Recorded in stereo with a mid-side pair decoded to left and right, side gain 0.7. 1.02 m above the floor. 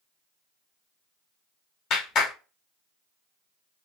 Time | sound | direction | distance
1.9 | a clap | 45° left | 1.4 m